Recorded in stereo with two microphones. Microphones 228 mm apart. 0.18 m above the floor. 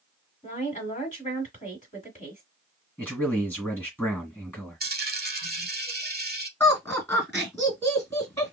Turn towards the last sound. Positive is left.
turn(degrees=15)  # may be behind; listen again after turning